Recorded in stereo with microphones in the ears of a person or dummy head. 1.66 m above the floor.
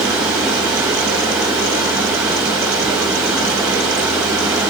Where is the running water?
5° right (ahead or behind), 1.6 m.